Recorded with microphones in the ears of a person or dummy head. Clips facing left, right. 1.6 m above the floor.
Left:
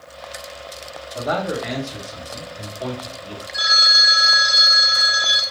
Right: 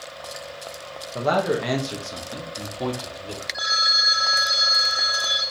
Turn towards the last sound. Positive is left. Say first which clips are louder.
# left 3 dB
turn(degrees=25)  # may be behind; listen again after turning